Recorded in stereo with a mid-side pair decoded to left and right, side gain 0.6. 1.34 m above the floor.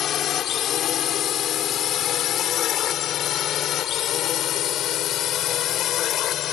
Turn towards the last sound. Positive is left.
turn(degrees=55)